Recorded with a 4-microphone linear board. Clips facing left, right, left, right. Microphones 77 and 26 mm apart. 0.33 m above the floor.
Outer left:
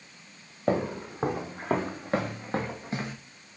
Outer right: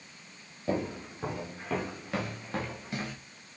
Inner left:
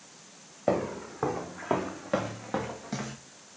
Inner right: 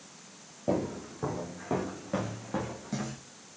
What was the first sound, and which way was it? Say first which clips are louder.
Footsteps: outer left 5 dB, inner left 3 dB; 60° left (ahead or behind).